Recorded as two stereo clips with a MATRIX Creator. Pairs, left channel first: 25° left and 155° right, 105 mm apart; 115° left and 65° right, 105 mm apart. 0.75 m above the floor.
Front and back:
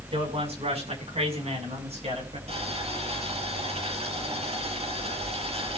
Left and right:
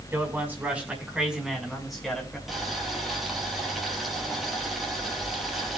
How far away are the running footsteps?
I don't hear running footsteps.